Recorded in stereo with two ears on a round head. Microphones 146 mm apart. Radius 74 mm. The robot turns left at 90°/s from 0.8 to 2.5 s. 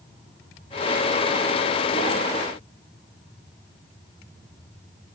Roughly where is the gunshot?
No gunshot in this recording.